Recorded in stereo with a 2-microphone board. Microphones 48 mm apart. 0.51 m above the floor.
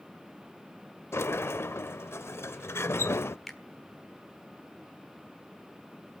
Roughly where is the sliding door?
Left.